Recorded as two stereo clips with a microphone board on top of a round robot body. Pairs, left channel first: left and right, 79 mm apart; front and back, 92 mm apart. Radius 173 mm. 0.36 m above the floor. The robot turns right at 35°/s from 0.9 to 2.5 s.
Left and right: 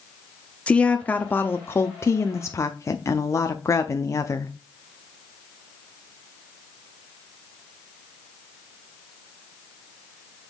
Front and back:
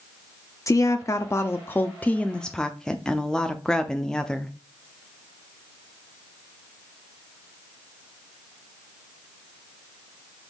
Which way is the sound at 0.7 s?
25° left.